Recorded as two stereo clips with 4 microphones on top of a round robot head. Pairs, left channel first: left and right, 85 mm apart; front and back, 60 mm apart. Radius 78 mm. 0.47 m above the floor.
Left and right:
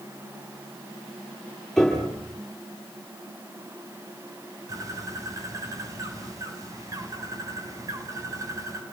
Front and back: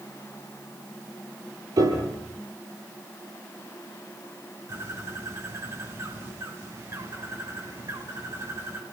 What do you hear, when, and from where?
1.8 s a piano: straight behind, 9 m
4.7 s a bird: 140° right, 4 m